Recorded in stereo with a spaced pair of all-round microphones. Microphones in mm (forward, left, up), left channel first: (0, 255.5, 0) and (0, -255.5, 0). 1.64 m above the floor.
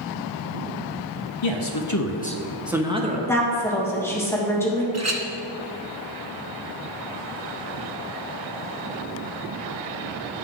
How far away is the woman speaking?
About 1.6 m.